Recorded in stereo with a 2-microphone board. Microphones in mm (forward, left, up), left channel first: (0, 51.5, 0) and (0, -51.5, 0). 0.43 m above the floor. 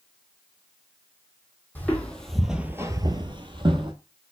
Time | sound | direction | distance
1.8 | footsteps | 15° left (ahead or behind) | 1.0 m